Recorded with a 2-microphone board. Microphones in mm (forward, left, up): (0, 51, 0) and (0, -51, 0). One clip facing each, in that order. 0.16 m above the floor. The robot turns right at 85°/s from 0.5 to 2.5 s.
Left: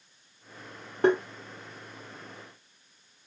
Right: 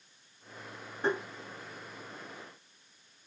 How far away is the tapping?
About 1.8 m.